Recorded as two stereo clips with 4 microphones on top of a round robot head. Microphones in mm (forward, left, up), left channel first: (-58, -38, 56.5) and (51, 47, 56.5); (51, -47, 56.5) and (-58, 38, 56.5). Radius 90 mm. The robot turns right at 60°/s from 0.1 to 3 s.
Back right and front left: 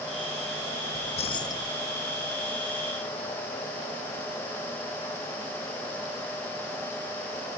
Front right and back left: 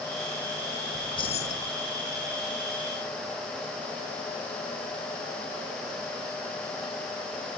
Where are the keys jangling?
110° right; by 1.7 s 65° right.